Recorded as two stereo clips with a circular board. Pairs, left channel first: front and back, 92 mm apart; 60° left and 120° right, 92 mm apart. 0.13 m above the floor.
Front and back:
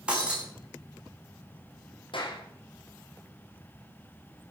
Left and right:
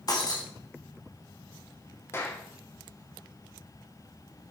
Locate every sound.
0.1 s breaking glass: 105° left, 6 m
2.1 s a clap: straight ahead, 5.5 m